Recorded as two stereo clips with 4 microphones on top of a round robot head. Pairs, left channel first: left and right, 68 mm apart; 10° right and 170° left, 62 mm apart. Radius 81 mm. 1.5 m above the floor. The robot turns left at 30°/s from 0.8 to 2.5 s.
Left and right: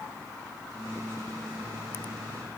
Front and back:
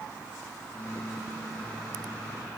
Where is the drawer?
No drawer in this recording.